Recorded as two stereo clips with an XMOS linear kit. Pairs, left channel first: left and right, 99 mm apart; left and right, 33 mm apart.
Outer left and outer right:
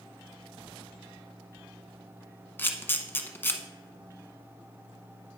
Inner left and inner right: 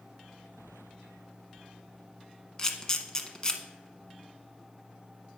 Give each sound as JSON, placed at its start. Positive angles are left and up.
{"t": 2.6, "sound": "a camera shutter", "side_deg": 20, "distance_m": 0.8}